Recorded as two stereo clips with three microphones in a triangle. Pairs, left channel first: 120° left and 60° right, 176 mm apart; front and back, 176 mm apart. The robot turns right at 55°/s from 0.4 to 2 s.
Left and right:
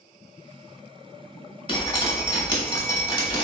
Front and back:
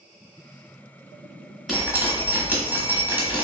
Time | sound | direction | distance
1.7 | dripping | 95° left | 1.1 m